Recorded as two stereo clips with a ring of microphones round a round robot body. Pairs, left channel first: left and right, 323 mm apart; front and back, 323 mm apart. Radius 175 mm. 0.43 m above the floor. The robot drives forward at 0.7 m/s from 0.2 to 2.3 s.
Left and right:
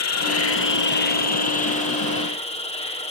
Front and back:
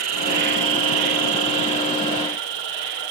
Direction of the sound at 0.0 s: 130° left.